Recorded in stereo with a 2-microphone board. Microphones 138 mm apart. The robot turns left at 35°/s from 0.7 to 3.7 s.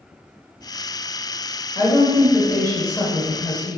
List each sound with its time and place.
1.8 s a woman speaking: 20° left (ahead or behind), 1.0 m; by 3.8 s 15° left (ahead or behind), 1.0 m